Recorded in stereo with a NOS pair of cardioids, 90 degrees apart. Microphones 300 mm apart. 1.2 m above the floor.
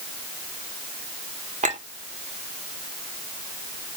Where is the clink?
25° right, 2.0 m.